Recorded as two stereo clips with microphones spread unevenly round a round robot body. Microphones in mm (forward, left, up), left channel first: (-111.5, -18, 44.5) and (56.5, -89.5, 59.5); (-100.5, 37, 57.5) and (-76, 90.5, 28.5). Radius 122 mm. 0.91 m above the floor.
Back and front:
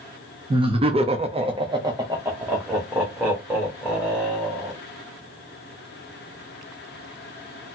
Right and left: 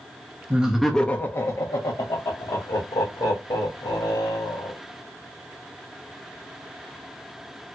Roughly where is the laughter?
Ahead left.